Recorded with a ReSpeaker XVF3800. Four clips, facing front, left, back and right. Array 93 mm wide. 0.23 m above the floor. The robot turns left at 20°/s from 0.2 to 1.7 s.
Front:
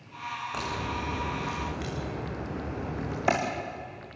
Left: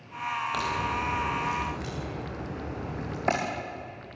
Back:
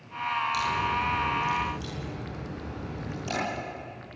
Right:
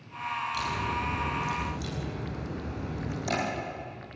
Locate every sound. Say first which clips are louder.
0.5 s a crack: left 2 dB, back 6 dB; 60° left, 7.5 m; by 3.3 s 35° left, 7.5 m